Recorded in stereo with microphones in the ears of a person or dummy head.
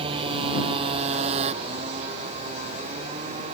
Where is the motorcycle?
30° right (ahead or behind); by 3.5 s 35° right (ahead or behind).